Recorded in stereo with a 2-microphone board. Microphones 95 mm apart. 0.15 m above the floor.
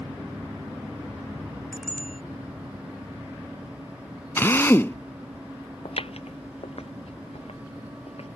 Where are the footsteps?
70° left (ahead or behind); by 8.3 s 80° left.